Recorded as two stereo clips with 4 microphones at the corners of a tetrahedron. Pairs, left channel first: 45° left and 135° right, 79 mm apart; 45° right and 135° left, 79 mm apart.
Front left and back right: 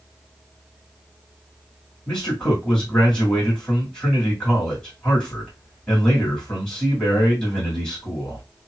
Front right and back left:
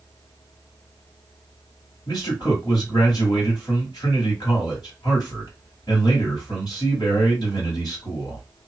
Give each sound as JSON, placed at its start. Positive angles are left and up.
{"t": 2.1, "sound": "a man speaking", "azimuth_deg": -35, "distance_m": 1.9}